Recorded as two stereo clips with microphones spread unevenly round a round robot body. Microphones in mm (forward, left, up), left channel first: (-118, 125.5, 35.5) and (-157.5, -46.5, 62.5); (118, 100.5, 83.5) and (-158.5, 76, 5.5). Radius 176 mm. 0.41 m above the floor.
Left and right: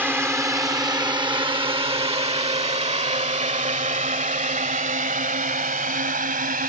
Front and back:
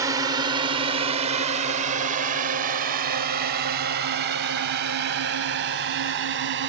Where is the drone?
175° left; by 6.7 s 135° right.